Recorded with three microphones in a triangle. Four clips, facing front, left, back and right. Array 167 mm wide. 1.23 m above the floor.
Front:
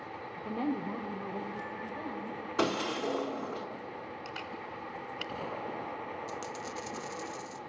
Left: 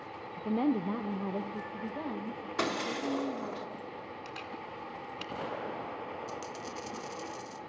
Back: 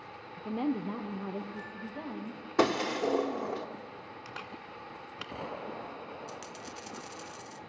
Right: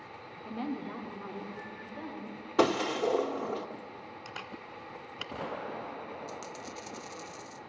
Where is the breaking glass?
130° right, 1.4 m.